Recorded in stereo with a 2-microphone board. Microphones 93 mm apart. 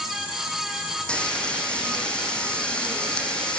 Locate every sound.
1.1 s frying: 10° left (ahead or behind), 4.5 m